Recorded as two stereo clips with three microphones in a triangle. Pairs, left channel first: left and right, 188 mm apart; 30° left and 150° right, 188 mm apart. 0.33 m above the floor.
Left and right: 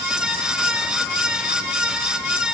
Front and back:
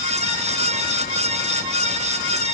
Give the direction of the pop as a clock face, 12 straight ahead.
I don't hear a pop.